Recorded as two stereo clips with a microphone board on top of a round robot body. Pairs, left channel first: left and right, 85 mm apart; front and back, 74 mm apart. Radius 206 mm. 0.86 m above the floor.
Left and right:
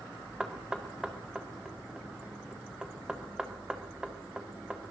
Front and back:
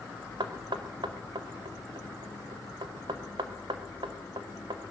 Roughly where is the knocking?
Behind.